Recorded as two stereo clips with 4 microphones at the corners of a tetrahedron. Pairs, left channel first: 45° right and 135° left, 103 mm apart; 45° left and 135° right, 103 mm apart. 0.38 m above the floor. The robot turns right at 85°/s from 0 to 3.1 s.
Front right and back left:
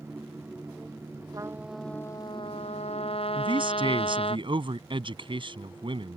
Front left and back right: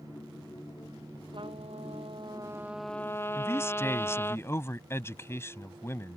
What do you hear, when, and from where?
1.3 s a trumpet: 170° right; by 4.4 s 20° right
3.4 s a man speaking: 110° left